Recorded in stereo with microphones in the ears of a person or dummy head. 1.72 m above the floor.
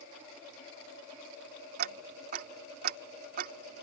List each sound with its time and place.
1.8 s ticking: 50° right (ahead or behind)